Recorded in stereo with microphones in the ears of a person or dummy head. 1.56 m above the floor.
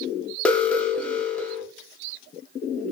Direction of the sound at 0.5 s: 5° left (ahead or behind).